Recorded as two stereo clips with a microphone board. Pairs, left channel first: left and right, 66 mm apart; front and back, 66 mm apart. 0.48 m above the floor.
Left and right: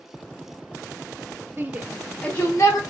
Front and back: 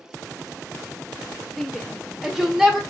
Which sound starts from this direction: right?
A shout, at 1.6 s.